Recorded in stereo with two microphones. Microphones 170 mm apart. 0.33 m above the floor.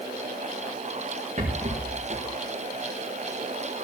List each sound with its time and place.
1.4 s a rattle: 50° right (ahead or behind), 5 m